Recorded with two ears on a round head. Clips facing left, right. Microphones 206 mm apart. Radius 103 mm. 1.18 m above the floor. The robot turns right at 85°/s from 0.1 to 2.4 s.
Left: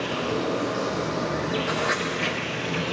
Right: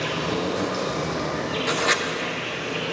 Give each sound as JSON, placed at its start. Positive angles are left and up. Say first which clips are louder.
{"t": 0.0, "sound": "an insect", "louder": "even", "azimuth_deg": -115, "distance_m": 3.0}
{"t": 1.7, "sound": "writing", "louder": "right 1 dB", "side_deg": -40, "distance_m": 0.5}